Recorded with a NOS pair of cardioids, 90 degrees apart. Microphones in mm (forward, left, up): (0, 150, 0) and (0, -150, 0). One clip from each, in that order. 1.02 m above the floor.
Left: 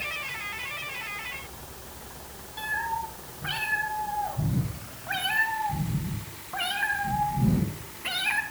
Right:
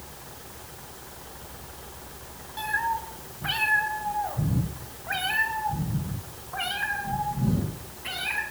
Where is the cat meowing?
30° right, 4 m; by 8.4 s 25° left, 4 m.